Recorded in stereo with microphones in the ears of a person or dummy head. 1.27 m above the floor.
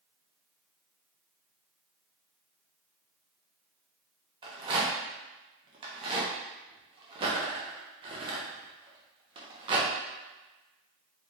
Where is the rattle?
30° right (ahead or behind), 0.8 m.